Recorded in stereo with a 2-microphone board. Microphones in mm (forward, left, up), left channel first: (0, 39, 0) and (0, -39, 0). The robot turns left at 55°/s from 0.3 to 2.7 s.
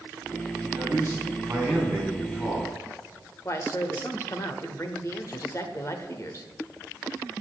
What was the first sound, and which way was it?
A man speaking, 110° right.